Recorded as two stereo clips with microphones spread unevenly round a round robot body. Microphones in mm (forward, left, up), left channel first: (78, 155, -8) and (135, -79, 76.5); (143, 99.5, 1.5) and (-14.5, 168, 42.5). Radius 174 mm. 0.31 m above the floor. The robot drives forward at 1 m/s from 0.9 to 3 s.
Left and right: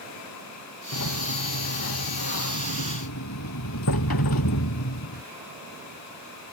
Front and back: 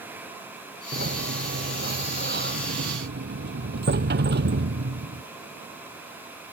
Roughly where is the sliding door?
Behind left.